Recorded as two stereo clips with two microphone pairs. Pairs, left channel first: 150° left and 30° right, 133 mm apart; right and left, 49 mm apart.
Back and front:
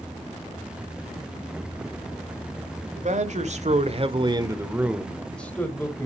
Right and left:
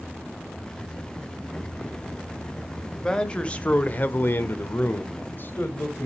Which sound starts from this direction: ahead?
A man speaking, at 3.0 s.